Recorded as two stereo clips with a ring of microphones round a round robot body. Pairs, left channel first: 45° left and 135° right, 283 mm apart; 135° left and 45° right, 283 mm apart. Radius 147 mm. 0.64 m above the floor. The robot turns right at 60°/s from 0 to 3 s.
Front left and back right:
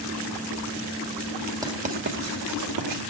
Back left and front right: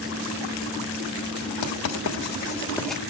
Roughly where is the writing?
Behind left.